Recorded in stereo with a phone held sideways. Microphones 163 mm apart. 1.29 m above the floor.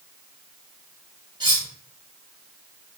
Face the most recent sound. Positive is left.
turn(degrees=-25)  # may be behind; listen again after turning